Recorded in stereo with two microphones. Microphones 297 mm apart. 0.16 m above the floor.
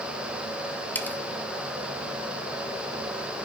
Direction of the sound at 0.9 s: 5° left (ahead or behind).